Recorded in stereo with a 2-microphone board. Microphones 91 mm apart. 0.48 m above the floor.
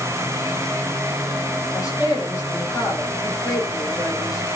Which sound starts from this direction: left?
A woman speaking, at 1.7 s.